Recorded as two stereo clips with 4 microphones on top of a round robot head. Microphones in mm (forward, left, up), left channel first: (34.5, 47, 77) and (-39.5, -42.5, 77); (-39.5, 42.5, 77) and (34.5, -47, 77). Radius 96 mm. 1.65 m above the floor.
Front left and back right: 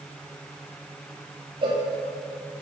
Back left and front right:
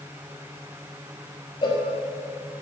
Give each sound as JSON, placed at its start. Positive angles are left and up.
{"t": 1.6, "sound": "a cowbell", "azimuth_deg": 180, "distance_m": 1.8}